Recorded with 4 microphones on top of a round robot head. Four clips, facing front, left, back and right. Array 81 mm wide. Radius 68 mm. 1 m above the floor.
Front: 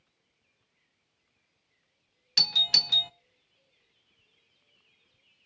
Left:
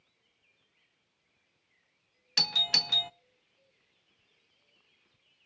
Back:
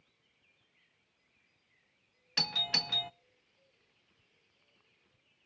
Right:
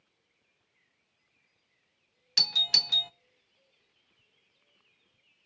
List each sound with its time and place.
2.4 s a doorbell: 125° left, 0.6 m